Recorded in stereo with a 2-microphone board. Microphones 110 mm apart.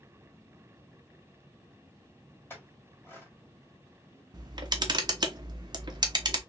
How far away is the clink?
About 1.7 m.